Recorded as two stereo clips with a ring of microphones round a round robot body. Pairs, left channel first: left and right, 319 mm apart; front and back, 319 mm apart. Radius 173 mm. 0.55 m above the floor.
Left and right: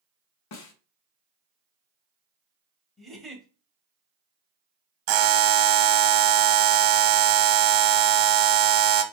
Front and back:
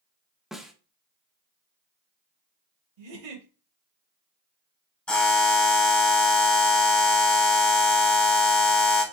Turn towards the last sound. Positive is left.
turn(degrees=-85)